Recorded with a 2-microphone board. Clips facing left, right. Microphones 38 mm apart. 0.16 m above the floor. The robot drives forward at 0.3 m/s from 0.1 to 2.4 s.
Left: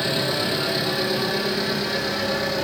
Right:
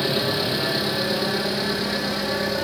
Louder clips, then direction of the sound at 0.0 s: Even; 10° right (ahead or behind).